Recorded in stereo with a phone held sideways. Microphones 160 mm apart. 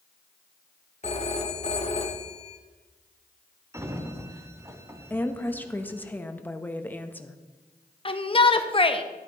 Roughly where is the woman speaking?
Centre.